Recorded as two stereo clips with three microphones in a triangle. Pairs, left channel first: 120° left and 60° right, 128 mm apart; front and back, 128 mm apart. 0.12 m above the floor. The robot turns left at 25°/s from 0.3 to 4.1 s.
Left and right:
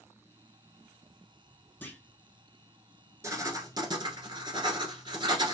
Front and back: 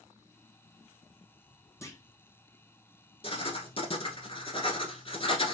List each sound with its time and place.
1.8 s a clunk: 55° left, 0.8 m; by 2.0 s 45° left, 0.8 m
3.2 s writing: straight ahead, 1.0 m; by 5.5 s 25° right, 1.0 m